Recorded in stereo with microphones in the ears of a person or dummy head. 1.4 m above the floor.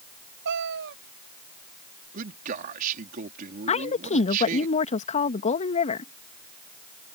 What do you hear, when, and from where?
0.5 s a cat meowing: 55° right (ahead or behind)
2.1 s a man speaking: 50° right (ahead or behind)
3.7 s a woman speaking: 40° left (ahead or behind)